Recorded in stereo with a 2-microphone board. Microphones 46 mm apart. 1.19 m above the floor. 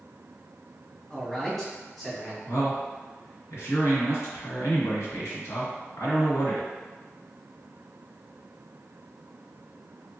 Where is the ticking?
No ticking in this recording.